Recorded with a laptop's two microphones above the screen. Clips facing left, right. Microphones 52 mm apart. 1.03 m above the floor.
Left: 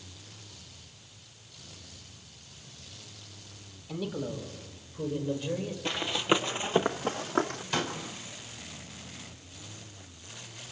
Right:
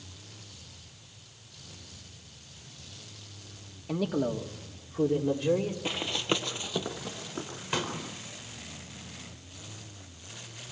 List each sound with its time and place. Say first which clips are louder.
3.9 s a man speaking: right 6 dB; 70° right (ahead or behind), 2.5 m; by 5.8 s 80° right, 4 m
5.8 s running footsteps: left 3 dB; 10° right (ahead or behind), 1.2 m; by 7.6 s 60° left (ahead or behind), 2 m
7.7 s a pop: even; 20° right (ahead or behind), 4.5 m